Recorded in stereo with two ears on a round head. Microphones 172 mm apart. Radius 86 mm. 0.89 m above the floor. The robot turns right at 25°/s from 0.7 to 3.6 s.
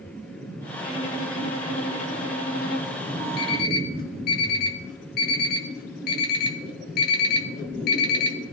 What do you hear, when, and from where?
0.8 s a violin: 40° left, 3 m; by 3.0 s 95° left, 3 m
3.4 s an alarm clock: 60° left (ahead or behind), 2 m; by 8.4 s 55° left (ahead or behind), 2 m